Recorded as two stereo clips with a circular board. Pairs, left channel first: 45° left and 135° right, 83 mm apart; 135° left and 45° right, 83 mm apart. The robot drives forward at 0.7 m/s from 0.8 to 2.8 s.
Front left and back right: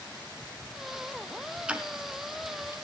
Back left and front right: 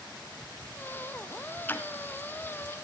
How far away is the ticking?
About 1.1 m.